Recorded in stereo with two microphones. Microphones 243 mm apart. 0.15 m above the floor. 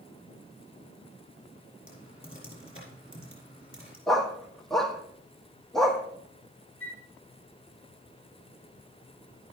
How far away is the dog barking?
About 1.3 m.